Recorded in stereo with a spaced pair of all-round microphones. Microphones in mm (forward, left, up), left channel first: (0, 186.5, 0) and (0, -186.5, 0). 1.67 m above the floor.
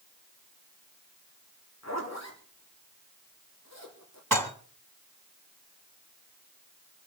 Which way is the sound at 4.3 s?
55° right (ahead or behind).